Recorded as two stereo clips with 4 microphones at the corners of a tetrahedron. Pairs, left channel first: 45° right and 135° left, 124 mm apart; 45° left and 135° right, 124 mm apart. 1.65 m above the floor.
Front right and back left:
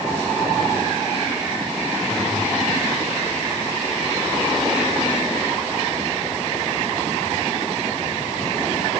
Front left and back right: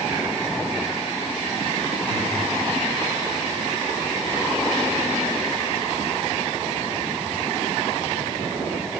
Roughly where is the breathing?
Right.